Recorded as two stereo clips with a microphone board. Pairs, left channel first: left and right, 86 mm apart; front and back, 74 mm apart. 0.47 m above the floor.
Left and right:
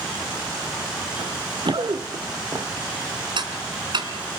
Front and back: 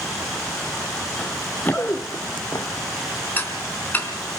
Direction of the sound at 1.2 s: 80° right.